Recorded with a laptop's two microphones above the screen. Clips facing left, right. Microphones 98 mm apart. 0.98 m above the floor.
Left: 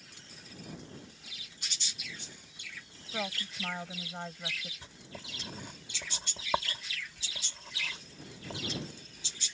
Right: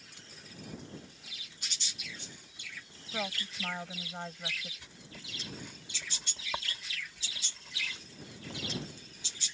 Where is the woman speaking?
Centre (ahead or behind).